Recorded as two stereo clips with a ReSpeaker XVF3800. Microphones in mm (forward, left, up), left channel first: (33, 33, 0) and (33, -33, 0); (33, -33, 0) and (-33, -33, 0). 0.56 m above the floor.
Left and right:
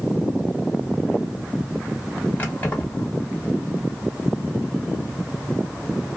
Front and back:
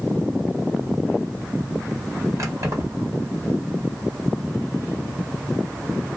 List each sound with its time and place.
2.4 s keys jangling: 150° left, 1.2 m